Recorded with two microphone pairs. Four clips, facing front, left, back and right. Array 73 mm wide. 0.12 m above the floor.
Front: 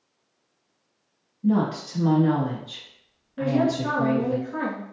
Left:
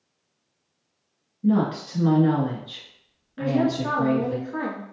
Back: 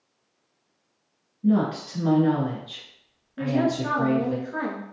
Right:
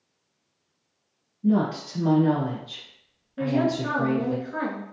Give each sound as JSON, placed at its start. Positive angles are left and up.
{"t": 1.4, "sound": "a woman speaking", "azimuth_deg": 130, "distance_m": 1.1}
{"t": 3.4, "sound": "a woman speaking", "azimuth_deg": -90, "distance_m": 1.1}